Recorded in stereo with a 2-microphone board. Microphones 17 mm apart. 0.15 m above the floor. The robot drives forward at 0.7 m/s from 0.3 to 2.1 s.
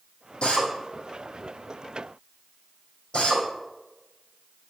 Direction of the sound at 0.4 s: 75° left (ahead or behind).